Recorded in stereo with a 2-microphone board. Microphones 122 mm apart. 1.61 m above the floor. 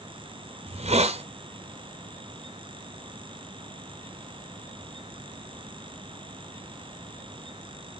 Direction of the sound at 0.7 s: 60° right (ahead or behind).